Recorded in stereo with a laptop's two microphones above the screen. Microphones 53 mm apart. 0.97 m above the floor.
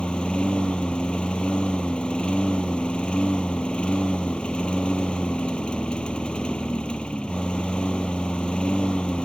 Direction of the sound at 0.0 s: 15° left (ahead or behind).